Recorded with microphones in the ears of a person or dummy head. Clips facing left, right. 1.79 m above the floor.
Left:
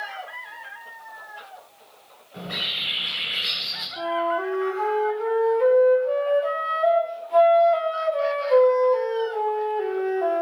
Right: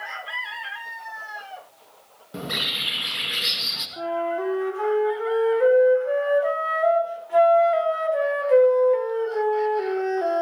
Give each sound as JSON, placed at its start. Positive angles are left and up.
{"t": 2.3, "sound": "a bird", "side_deg": -70, "distance_m": 2.0}
{"t": 4.0, "sound": "a flute", "side_deg": -25, "distance_m": 1.2}